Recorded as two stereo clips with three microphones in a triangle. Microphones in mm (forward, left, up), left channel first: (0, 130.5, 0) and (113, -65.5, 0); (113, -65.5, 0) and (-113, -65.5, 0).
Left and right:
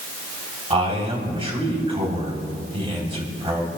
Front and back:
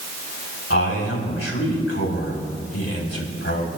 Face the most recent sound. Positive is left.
turn(degrees=5)